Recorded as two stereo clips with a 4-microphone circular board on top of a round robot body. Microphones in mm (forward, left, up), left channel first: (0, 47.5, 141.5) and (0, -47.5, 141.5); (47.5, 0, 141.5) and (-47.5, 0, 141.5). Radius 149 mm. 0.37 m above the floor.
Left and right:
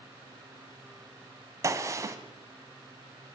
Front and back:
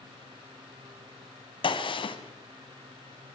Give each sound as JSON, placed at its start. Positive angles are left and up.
{"t": 1.6, "sound": "a gunshot", "azimuth_deg": -30, "distance_m": 1.8}